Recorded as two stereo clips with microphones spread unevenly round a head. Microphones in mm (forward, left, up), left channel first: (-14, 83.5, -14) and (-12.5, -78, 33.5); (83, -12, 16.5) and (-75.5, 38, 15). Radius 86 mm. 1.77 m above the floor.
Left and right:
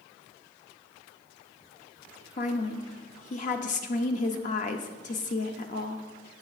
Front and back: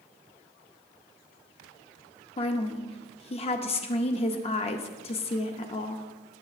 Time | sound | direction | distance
2.4 | a woman speaking | 35° left | 0.5 m